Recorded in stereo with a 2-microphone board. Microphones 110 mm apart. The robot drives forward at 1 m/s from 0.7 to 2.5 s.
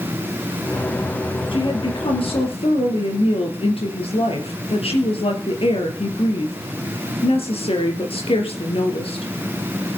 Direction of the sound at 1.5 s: 50° left (ahead or behind).